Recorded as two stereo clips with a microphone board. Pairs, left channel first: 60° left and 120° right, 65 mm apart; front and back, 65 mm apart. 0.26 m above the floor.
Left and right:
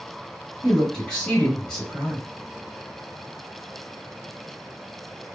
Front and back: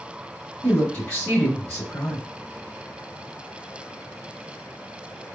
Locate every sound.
0.6 s a woman speaking: 15° right, 1.0 m